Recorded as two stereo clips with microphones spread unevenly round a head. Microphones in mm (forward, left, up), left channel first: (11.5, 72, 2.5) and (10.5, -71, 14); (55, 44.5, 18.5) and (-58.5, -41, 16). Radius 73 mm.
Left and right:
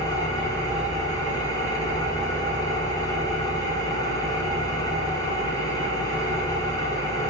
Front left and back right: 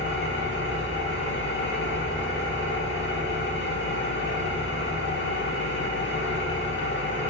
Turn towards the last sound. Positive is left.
turn(degrees=25)